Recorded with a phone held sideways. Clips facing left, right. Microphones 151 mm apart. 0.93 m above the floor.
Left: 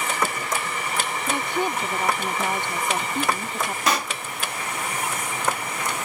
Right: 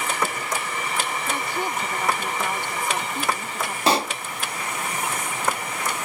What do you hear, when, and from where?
1.3 s a woman speaking: 20° left (ahead or behind)
3.9 s a pop: 30° right (ahead or behind)